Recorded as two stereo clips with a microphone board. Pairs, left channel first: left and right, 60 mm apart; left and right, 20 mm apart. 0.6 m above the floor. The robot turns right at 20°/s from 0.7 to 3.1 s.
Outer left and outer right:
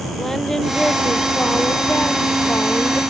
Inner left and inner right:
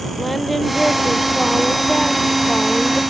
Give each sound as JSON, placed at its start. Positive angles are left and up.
{"t": 0.2, "sound": "singing", "azimuth_deg": 5}